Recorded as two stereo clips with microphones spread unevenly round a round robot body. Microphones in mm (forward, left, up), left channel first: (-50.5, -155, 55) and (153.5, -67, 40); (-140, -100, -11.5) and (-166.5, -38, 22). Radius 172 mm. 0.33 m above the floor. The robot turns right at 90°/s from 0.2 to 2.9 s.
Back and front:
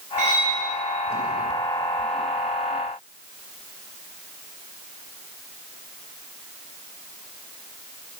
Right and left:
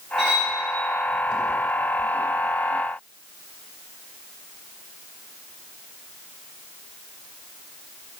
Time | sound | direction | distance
0.2 | cutlery clinking | 75° left | 1.2 m